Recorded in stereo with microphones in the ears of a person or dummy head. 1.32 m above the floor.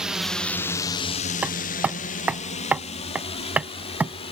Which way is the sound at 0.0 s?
5° right (ahead or behind).